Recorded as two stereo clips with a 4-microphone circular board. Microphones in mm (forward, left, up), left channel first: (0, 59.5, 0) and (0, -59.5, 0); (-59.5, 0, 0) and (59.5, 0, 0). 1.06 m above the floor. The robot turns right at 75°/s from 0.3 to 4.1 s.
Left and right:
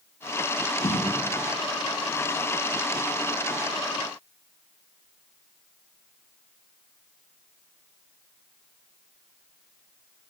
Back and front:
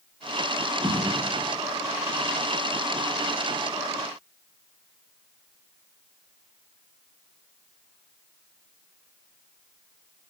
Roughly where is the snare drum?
Ahead left.